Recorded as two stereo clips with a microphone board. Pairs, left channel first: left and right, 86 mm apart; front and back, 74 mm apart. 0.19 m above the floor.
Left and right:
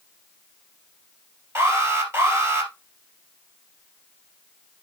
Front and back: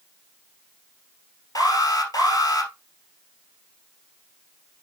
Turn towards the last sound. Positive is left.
turn(degrees=-35)